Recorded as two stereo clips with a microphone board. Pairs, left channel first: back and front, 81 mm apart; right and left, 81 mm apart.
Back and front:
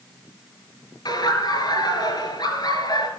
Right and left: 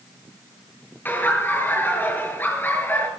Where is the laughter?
155° right, 5 m.